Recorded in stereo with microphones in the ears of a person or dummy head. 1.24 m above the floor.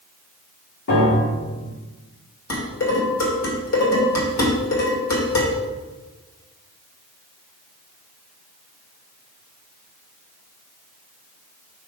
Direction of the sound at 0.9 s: 55° left (ahead or behind).